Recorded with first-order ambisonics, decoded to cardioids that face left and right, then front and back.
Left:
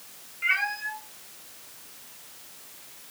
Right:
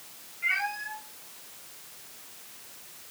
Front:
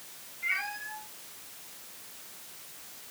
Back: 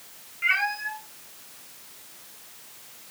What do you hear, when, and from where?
0.4 s a cat meowing: 155° left, 3 m; by 3.1 s 130° left, 1.8 m